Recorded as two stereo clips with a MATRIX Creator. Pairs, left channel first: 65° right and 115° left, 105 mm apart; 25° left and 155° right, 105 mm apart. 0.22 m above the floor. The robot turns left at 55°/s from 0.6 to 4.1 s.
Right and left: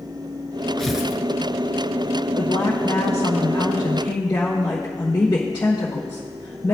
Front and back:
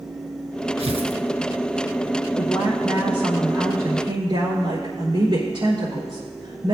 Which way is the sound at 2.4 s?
35° right.